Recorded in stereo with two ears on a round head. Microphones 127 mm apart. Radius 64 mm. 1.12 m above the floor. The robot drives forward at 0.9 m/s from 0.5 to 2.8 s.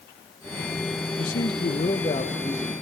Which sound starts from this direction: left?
A man speaking, at 1.2 s.